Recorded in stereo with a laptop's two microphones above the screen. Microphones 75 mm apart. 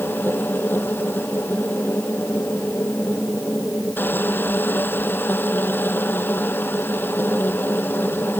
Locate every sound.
0.0 s a machine running: 30° left (ahead or behind)